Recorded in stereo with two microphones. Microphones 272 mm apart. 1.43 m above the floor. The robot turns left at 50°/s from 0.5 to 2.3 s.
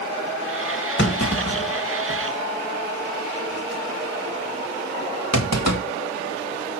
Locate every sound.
1.0 s a clunk: 40° left (ahead or behind), 2.5 m; by 5.8 s 70° left (ahead or behind), 2.5 m